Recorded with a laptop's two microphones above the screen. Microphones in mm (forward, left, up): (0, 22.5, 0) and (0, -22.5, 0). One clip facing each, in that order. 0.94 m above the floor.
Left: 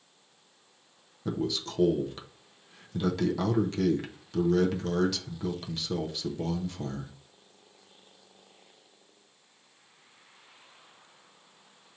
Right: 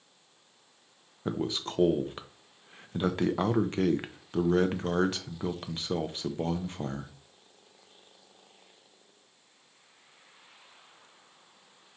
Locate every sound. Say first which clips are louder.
1.2 s a man speaking: even; 30° right (ahead or behind), 0.5 m